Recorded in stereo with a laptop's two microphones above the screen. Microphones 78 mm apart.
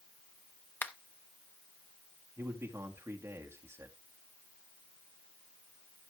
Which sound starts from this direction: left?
A finger snap, at 0.8 s.